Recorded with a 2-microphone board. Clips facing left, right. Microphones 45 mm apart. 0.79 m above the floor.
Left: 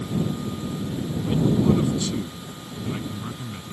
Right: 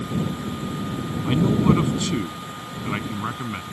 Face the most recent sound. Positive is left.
turn(degrees=-50)  # may be behind; listen again after turning